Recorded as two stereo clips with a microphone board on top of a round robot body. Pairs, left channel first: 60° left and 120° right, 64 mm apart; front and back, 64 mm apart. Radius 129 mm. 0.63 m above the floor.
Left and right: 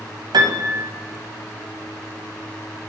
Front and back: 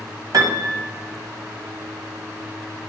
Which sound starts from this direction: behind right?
A piano, at 0.3 s.